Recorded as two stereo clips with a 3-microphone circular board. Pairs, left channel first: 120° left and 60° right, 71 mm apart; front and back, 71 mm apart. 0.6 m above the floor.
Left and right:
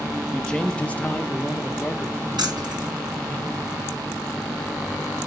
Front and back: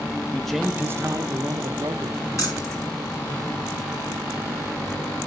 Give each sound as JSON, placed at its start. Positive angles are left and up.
{"t": 0.3, "sound": "a man speaking", "azimuth_deg": 50, "distance_m": 0.6}
{"t": 2.4, "sound": "keys jangling", "azimuth_deg": -45, "distance_m": 3.0}